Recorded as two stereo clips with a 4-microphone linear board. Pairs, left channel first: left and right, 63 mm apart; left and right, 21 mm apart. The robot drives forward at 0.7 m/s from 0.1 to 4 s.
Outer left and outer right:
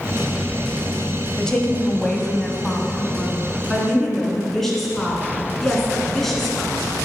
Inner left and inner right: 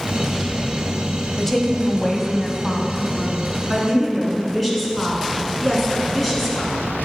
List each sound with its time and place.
1.4 s a woman speaking: 10° left (ahead or behind), 1.0 m; by 6.8 s 5° left (ahead or behind), 2.5 m